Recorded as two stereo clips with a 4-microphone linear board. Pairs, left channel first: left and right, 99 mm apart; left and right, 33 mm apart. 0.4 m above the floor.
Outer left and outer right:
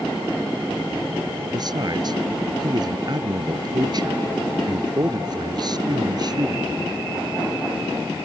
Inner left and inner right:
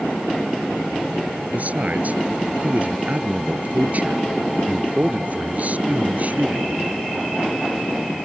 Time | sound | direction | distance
1.5 | a man speaking | 45° right (ahead or behind) | ?